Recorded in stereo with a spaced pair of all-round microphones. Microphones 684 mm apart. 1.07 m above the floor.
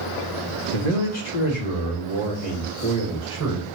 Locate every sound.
0.7 s a man speaking: 65° left (ahead or behind), 1.1 m; by 3.7 s 25° left (ahead or behind), 2.5 m